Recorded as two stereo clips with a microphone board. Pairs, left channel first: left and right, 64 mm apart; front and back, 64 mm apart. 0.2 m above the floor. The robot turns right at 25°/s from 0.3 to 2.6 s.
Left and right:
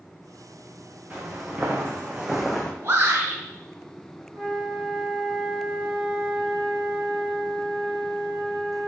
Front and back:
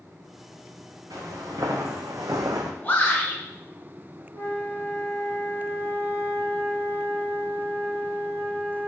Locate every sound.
1.1 s footsteps: 160° right, 1.3 m; by 2.7 s 165° left, 0.6 m
2.8 s a shout: 60° right, 1.6 m
4.3 s a flute: 155° right, 2 m